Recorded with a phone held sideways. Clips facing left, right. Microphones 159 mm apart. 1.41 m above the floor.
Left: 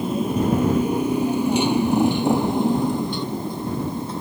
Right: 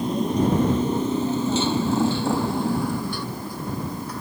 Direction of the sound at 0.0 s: 5° left (ahead or behind).